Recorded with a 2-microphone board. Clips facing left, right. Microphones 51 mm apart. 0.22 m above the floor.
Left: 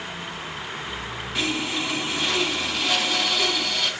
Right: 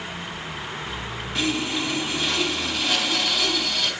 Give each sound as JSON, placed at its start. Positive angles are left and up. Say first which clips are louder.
{"t": 1.4, "sound": "sawing", "louder": "right 1 dB", "side_deg": 0, "distance_m": 1.3}